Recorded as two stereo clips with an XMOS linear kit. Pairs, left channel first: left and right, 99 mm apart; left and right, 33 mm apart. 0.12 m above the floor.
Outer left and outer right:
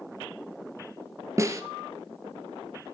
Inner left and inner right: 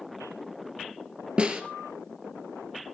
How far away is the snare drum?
About 3 m.